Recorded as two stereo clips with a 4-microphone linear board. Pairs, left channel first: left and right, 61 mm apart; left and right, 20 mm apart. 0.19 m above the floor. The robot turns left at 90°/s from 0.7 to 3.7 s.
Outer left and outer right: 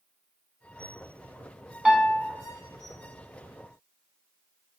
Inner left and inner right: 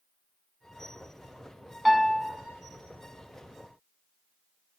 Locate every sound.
1.9 s a piano: 165° right, 0.6 m; by 2.3 s 155° left, 0.6 m